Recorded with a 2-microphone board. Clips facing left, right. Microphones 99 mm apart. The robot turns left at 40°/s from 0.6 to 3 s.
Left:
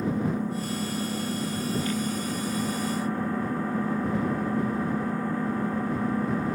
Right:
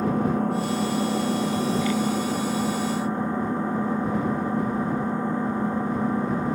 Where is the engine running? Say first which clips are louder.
Right 4 dB; 65° right; by 6.5 s 160° right.